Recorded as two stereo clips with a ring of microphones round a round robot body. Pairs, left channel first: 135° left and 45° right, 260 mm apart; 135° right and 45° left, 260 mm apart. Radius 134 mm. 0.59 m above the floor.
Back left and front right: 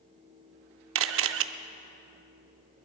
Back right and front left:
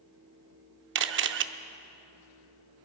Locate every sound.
0.9 s a camera shutter: 5° right, 0.6 m